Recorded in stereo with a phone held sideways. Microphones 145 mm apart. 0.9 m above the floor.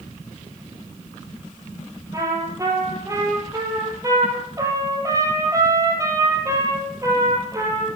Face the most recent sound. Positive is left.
turn(degrees=-25)  # may be behind; listen again after turning